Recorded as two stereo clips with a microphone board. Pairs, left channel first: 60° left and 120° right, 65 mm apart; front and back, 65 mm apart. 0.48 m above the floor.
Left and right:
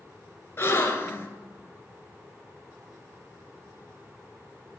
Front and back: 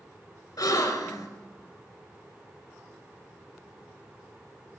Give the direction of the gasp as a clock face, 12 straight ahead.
12 o'clock.